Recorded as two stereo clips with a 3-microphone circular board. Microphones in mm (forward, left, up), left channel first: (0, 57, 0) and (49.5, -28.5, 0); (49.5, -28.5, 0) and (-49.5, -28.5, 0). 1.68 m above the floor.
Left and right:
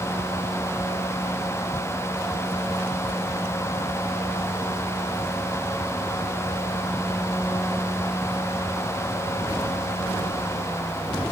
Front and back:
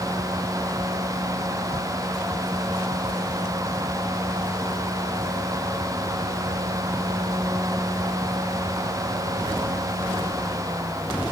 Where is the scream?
I don't hear a scream.